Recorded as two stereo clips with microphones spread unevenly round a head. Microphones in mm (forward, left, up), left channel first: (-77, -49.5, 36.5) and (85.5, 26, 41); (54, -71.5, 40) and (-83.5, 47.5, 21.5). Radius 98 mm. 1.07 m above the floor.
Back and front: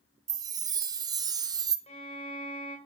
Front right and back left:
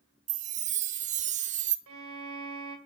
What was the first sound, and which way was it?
A chime, 95° left.